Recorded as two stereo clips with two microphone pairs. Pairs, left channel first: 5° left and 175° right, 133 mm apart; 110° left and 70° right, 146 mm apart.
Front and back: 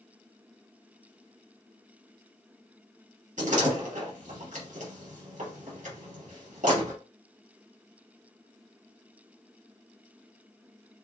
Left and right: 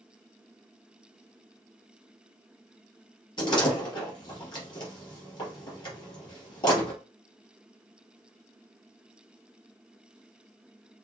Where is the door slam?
170° left, 3.5 m.